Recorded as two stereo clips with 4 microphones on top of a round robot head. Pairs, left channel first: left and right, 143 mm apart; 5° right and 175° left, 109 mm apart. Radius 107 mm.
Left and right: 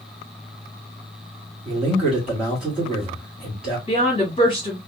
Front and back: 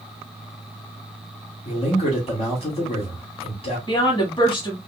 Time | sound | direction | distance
1.6 | a man speaking | 5° right | 1.6 m
3.9 | a woman speaking | 35° left | 1.4 m